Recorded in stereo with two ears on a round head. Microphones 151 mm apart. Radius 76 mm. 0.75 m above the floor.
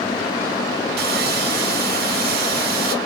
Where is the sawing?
65° right (ahead or behind), 1.5 m.